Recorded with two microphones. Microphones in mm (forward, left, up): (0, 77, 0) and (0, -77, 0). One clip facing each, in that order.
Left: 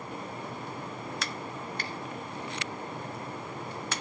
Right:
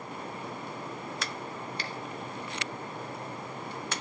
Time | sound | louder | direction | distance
1.8 | a finger snap | even | 50° left (ahead or behind) | 0.9 m